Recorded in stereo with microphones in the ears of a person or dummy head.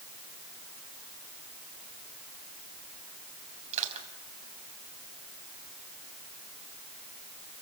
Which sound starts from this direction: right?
Crushing, at 3.7 s.